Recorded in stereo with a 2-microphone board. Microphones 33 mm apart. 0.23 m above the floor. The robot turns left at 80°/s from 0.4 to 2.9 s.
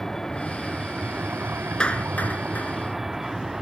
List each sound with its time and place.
0.0 s a vehicle: 10° left (ahead or behind); by 3.6 s 10° right (ahead or behind)
1.8 s a clap: 30° left (ahead or behind); by 2.7 s 60° left (ahead or behind)